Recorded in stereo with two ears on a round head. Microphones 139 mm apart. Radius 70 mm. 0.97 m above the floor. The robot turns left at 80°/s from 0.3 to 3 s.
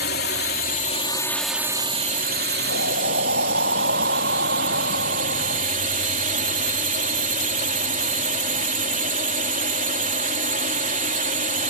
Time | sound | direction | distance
0.0 | a drone | 95° left | ?
2.7 | breathing | 85° right | ?